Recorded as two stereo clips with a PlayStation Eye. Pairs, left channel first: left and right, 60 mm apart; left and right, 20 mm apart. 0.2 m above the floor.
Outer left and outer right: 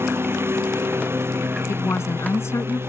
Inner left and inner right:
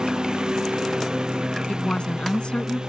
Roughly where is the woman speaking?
Left.